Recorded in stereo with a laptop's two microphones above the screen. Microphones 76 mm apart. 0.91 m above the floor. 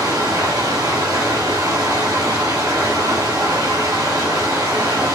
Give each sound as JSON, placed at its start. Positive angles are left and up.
{"t": 0.0, "sound": "running water", "side_deg": -75, "distance_m": 4.0}